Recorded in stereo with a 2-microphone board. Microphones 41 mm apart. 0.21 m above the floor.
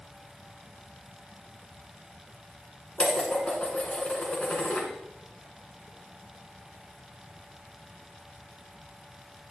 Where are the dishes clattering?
30° left (ahead or behind), 1.6 m.